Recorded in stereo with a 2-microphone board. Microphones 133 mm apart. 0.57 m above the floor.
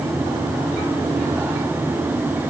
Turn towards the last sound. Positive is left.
No sound to turn to.